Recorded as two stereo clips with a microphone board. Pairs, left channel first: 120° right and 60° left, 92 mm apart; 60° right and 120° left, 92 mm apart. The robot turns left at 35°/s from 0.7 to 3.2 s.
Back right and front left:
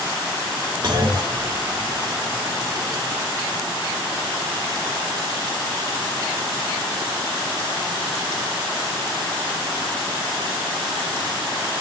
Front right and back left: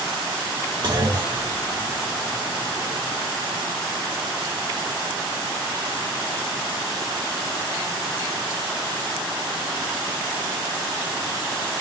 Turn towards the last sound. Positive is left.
turn(degrees=10)